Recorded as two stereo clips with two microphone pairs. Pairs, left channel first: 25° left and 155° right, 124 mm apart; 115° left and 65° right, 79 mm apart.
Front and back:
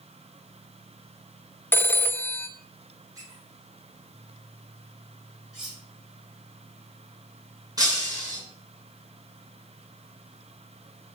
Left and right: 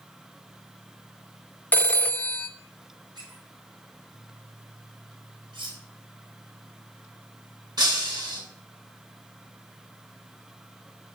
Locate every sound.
1.7 s a phone ringing: 70° left, 0.6 m
3.1 s a squeak: 95° right, 4 m
5.5 s cutlery clinking: 70° right, 5 m
7.8 s breaking glass: 95° right, 7 m